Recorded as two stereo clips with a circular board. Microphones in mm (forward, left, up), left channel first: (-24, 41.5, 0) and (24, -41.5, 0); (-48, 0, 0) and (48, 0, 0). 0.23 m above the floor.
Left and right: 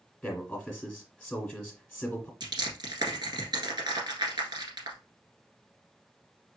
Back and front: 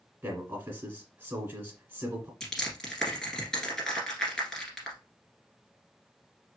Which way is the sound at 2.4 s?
95° right.